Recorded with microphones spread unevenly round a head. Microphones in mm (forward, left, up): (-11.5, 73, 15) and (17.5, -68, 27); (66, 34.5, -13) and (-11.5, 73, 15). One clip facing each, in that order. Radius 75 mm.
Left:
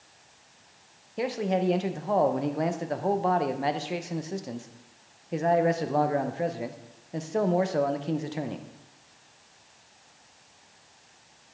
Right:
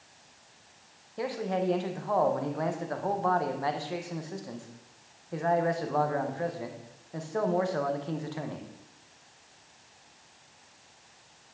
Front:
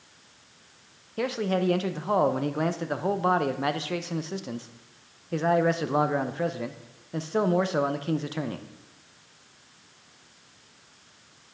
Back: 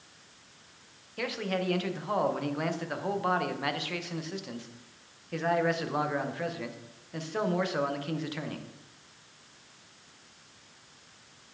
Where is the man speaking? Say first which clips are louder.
Left 3 dB, front 6 dB; 35° left, 0.7 m.